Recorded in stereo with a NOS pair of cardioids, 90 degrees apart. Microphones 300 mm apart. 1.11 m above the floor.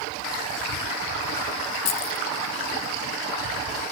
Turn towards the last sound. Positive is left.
turn(degrees=55)